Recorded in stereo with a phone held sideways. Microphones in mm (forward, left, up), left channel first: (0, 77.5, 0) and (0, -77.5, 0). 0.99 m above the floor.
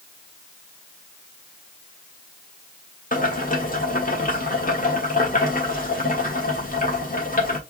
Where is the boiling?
65° left (ahead or behind), 1.5 m.